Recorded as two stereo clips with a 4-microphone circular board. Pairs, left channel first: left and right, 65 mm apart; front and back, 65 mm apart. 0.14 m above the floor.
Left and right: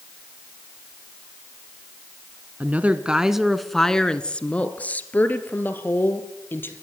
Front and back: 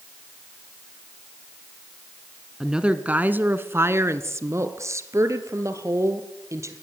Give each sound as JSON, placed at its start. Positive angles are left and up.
{"t": 2.6, "sound": "a woman speaking", "azimuth_deg": -105, "distance_m": 1.1}